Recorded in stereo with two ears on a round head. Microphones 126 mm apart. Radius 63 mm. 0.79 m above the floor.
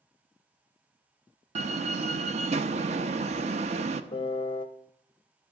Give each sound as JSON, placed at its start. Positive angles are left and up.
{"t": 1.6, "sound": "a door slam", "side_deg": -50, "distance_m": 0.7}
{"t": 4.1, "sound": "a piano", "side_deg": 35, "distance_m": 0.6}